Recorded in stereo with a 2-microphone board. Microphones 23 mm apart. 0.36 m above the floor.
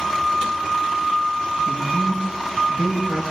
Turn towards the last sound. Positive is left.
turn(degrees=-60)  # may be behind; listen again after turning